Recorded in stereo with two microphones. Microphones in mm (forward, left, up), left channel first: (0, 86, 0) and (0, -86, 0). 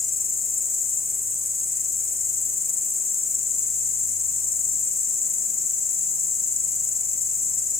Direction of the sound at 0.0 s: 50° left (ahead or behind).